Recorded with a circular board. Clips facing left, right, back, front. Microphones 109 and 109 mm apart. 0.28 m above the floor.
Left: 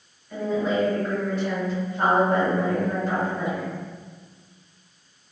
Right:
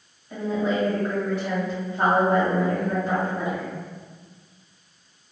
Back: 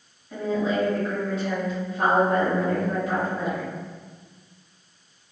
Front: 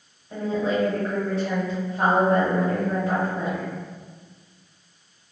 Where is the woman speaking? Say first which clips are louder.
Left 1 dB, even; 25° right, 1.8 m.